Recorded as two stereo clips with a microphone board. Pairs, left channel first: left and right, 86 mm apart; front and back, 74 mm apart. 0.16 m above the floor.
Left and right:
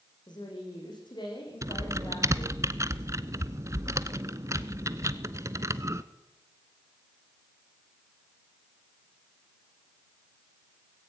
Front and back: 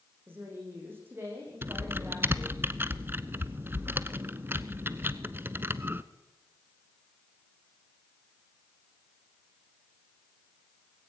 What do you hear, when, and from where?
0.3 s a woman speaking: 120° left, 7.5 m
1.6 s typing on a keyboard: 130° right, 0.8 m